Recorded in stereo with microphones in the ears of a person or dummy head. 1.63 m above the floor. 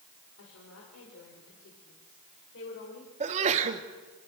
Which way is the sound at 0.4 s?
75° left (ahead or behind).